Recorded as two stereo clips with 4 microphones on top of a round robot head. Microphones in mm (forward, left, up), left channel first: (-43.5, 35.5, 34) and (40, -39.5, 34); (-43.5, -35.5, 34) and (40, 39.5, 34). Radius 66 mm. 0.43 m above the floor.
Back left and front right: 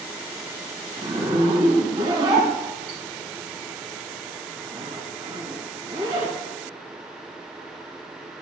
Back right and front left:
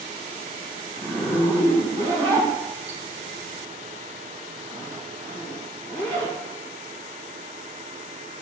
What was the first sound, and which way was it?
A zipper, 15° left.